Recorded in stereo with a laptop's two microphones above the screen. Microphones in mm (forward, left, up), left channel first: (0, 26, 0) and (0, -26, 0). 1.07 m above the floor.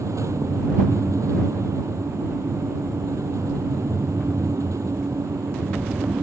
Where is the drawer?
No drawer in this recording.